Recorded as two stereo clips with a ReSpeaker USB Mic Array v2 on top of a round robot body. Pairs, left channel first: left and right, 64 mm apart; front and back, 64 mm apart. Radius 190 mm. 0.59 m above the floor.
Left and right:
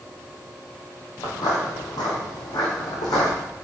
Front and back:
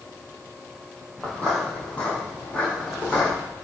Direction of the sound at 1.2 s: 75° left.